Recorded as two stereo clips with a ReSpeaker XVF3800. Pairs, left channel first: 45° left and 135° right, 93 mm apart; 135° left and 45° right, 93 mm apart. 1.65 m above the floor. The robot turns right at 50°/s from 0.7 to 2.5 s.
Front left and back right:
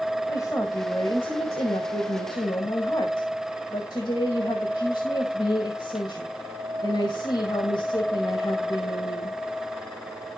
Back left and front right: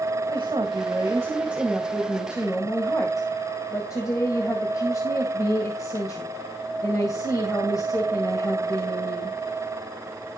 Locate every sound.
0.3 s a woman speaking: 10° right, 1.9 m; by 9.4 s 80° left, 1.9 m